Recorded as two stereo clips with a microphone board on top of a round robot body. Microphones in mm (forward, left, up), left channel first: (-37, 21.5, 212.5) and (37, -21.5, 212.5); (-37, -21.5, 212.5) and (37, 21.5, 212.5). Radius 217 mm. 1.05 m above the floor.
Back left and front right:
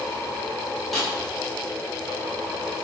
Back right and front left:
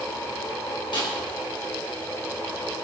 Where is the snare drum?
125° right, 10 m.